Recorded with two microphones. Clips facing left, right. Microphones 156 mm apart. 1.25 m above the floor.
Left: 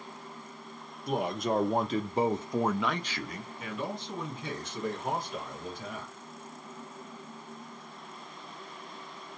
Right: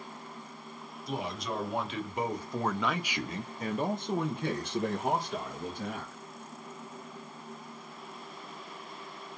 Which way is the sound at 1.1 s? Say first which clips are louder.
Left 6 dB; 55° left (ahead or behind).